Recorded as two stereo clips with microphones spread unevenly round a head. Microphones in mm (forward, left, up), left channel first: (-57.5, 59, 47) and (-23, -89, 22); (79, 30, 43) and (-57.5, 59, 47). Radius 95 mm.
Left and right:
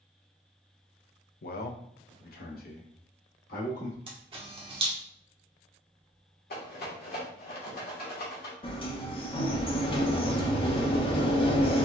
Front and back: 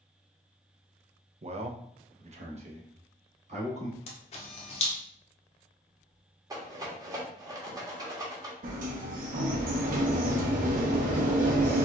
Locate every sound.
1.4 s a man speaking: 125° left, 0.7 m; by 4.0 s 130° left, 2 m
4.1 s a camera shutter: 20° right, 0.6 m
6.5 s a rattle: 110° left, 1.3 m
8.6 s a sliding door: 160° left, 0.9 m